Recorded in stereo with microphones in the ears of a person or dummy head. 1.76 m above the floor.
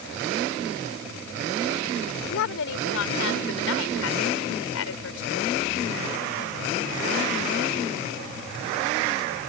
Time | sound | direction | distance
2.3 | a woman speaking | 80° left | ?